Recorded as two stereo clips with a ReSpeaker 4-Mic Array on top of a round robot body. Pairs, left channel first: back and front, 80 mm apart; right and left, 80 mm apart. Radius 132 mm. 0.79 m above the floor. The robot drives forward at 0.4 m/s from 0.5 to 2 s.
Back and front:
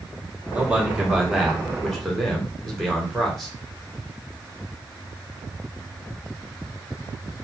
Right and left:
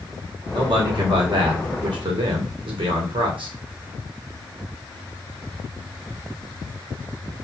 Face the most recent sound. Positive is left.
turn(degrees=95)